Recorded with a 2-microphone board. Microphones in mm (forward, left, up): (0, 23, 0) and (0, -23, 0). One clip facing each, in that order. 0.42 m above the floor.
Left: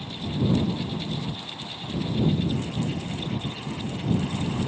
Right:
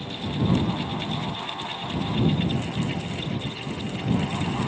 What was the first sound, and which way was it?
Only background noise.